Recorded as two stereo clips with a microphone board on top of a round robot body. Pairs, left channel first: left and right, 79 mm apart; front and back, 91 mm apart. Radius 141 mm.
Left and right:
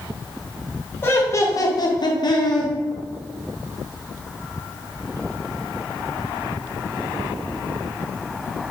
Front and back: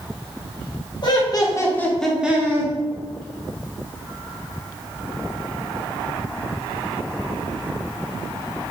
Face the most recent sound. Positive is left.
turn(degrees=125)